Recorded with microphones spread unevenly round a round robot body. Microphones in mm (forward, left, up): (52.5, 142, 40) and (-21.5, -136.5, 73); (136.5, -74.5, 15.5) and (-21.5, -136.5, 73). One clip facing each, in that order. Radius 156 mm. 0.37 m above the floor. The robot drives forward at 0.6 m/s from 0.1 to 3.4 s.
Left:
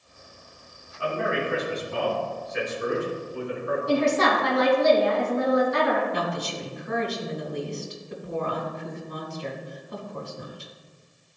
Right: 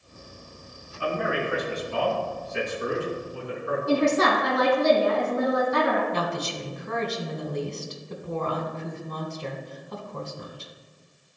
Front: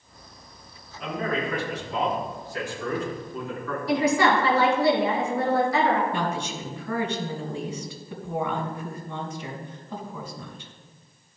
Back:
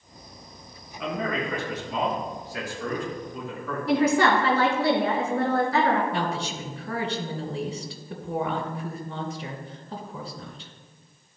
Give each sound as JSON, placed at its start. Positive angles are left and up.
{"t": 1.0, "sound": "a man speaking", "azimuth_deg": -160, "distance_m": 4.0}
{"t": 3.9, "sound": "a woman speaking", "azimuth_deg": -125, "distance_m": 4.0}
{"t": 6.1, "sound": "a woman speaking", "azimuth_deg": -135, "distance_m": 2.0}